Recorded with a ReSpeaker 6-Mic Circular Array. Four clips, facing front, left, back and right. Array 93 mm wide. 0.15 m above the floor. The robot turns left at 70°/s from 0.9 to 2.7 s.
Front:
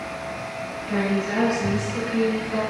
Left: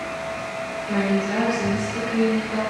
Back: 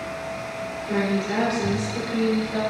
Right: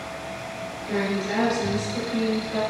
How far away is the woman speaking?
About 2.0 m.